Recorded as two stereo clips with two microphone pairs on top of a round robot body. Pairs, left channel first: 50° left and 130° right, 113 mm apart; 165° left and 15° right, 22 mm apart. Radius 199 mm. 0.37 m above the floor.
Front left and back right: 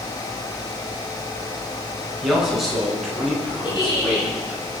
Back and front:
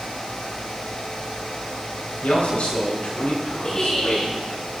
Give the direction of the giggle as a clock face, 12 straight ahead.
9 o'clock.